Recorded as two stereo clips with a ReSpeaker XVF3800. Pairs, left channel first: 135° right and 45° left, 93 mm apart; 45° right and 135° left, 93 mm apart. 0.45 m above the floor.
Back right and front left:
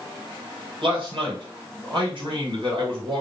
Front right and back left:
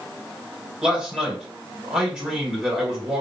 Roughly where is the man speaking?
Ahead left.